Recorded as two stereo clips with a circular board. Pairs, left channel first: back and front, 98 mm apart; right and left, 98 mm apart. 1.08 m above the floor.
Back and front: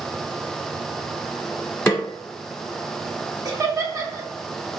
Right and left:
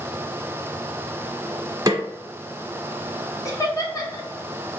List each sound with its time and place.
1.9 s a snare drum: 120° left, 1.2 m
3.5 s laughter: 45° right, 1.0 m